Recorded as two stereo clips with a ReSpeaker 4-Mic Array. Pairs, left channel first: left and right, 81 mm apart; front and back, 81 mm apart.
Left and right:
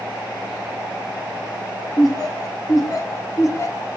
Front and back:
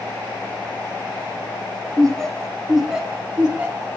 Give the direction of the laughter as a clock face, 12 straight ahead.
9 o'clock.